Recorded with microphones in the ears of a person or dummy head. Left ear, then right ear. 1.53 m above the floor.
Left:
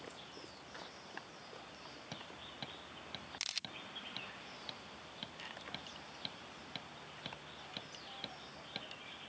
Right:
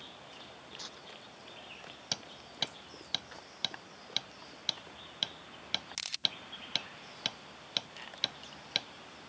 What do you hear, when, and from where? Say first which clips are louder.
0.8 s tearing paper: right 6 dB; 80° right
2.1 s hammering: right 12 dB; 55° right (ahead or behind)